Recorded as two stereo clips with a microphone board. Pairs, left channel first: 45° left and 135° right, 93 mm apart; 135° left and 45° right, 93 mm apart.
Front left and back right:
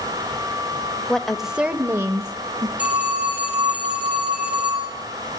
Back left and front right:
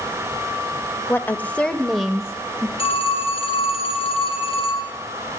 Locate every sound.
1.1 s a woman speaking: 110° left, 0.9 m; by 2.7 s 115° right, 1.2 m
2.8 s a phone ringing: 150° left, 4.5 m